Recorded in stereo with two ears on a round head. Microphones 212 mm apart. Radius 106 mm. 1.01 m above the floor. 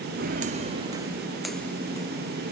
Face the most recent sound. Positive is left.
turn(degrees=20)  # may be behind; listen again after turning